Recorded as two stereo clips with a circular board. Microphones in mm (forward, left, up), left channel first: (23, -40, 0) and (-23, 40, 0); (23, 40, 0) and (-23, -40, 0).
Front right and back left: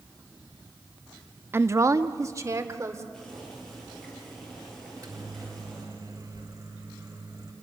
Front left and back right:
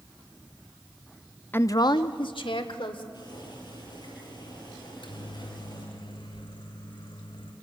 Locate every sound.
1.5 s a woman speaking: 95° left, 0.5 m; by 3.0 s 65° left, 2.5 m
3.1 s boiling: 25° left, 8.5 m
4.8 s a microwave: 70° left, 3.5 m